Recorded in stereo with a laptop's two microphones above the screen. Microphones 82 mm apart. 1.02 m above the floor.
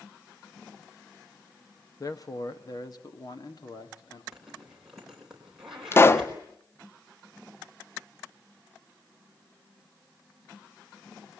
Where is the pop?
30° left (ahead or behind), 0.5 m.